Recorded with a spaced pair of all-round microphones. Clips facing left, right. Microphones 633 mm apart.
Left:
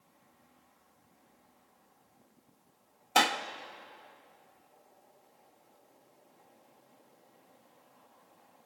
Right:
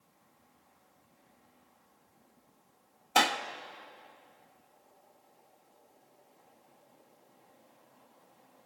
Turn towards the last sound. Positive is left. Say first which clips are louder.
# even
turn(degrees=0)  # may be behind; listen again after turning